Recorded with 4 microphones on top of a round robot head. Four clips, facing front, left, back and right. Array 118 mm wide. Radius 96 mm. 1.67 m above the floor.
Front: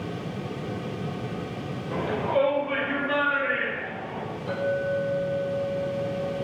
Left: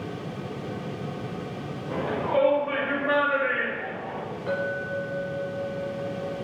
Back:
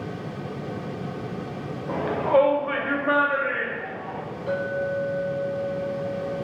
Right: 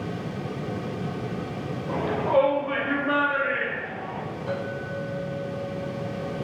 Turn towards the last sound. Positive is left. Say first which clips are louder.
# left 4 dB, even
turn(degrees=115)